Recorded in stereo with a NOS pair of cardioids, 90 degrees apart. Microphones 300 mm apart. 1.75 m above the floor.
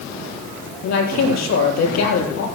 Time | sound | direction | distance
0.8 | a man speaking | 65° left | 4.5 m